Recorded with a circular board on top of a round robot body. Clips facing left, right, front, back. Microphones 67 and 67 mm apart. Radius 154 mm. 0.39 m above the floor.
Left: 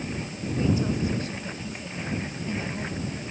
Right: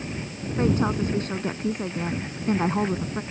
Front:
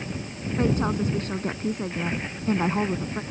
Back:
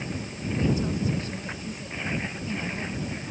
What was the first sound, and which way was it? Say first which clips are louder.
A woman speaking: right 3 dB, front 3 dB; 45° right.